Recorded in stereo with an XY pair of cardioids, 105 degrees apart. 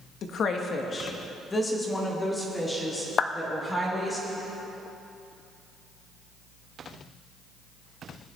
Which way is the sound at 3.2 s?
45° left.